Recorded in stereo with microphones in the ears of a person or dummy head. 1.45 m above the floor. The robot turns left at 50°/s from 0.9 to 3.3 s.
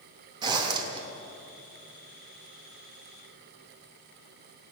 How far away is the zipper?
About 3 m.